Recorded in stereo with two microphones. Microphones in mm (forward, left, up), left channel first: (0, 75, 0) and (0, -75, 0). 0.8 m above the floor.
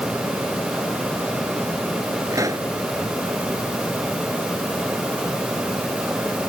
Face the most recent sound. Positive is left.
turn(degrees=-20)  # may be behind; listen again after turning